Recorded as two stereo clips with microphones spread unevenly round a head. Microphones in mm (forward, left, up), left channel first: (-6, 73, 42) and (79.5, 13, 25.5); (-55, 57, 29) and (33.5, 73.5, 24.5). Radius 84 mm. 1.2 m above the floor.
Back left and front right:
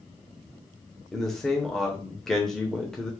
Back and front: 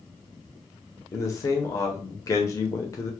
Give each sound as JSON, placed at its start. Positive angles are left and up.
{"t": 1.1, "sound": "a man speaking", "azimuth_deg": -120, "distance_m": 0.6}